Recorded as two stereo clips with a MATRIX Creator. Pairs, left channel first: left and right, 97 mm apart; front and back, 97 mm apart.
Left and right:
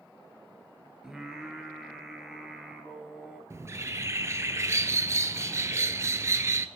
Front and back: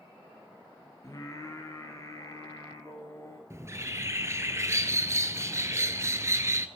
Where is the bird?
135° right, 0.6 m.